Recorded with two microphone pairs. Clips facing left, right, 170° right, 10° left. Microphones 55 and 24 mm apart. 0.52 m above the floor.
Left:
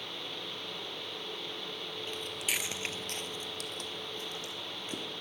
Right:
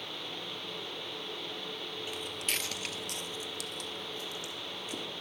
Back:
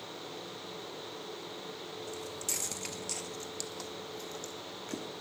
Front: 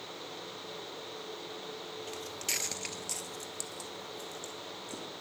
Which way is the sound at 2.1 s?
15° right.